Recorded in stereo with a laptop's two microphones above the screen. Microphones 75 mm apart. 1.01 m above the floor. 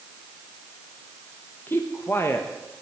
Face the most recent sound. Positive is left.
turn(degrees=30)  # may be behind; listen again after turning